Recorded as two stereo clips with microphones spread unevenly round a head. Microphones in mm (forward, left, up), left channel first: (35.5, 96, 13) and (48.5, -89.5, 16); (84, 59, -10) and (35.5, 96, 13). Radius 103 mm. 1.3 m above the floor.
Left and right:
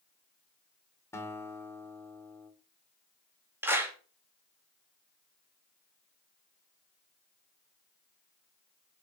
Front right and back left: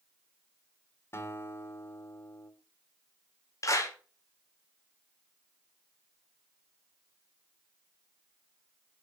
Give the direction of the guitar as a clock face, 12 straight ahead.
11 o'clock.